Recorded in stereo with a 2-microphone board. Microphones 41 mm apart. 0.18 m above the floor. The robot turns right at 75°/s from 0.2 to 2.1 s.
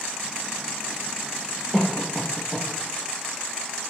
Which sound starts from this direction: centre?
A cough, at 1.7 s.